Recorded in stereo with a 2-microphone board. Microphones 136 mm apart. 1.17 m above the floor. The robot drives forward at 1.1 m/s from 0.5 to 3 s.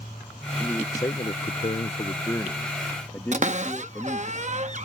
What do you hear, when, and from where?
0.6 s a man speaking: 20° left (ahead or behind); by 4.3 s 15° left (ahead or behind)
3.3 s a cupboard door: 60° right (ahead or behind)